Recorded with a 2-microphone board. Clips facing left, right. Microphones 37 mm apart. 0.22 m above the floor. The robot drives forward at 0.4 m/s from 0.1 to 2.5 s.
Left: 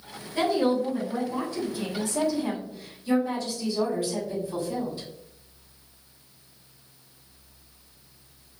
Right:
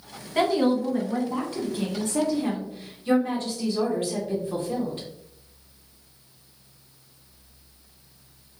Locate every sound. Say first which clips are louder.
0.3 s a woman speaking: right 2 dB; 50° right (ahead or behind), 1.4 m; by 5.1 s 45° right (ahead or behind), 1.6 m